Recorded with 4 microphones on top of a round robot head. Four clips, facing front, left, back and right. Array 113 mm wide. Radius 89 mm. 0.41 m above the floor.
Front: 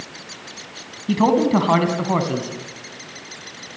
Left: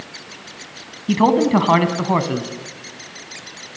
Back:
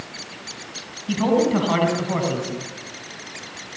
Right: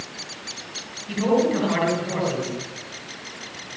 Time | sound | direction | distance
1.1 | a man speaking | 65° left | 4 m